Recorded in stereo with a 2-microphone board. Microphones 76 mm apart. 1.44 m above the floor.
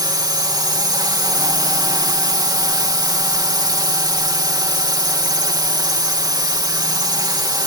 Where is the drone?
60° right (ahead or behind).